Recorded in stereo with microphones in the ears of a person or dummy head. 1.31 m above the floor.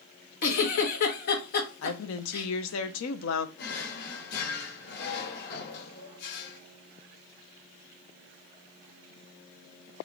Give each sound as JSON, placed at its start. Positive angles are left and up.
{"t": 0.4, "sound": "a giggle", "side_deg": 50, "distance_m": 1.0}
{"t": 1.8, "sound": "a woman speaking", "side_deg": 70, "distance_m": 0.6}
{"t": 3.6, "sound": "a drawer", "side_deg": 65, "distance_m": 1.2}